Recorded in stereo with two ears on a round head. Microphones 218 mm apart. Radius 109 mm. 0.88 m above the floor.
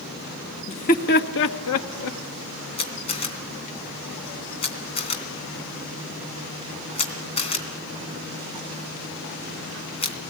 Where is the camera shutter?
25° left (ahead or behind), 2.5 m.